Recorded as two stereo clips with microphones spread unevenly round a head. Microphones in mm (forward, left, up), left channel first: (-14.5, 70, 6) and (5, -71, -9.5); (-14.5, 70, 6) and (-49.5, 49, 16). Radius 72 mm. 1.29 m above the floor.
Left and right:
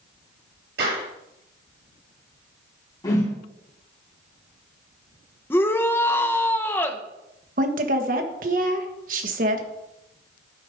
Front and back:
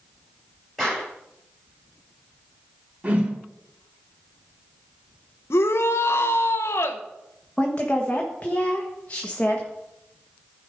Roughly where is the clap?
Ahead right.